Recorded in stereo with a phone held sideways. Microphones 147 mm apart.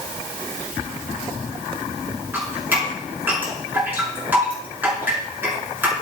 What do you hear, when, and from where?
2.3 s dripping: 10° right (ahead or behind), 7 m